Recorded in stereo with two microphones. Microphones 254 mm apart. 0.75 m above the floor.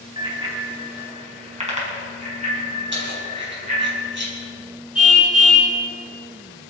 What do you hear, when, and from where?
0.2 s a bicycle bell: 20° right (ahead or behind), 3.5 m; by 3.9 s 35° right (ahead or behind), 7.5 m
2.9 s keys jangling: 50° right (ahead or behind), 4.5 m
5.0 s a car horn: 80° right, 4 m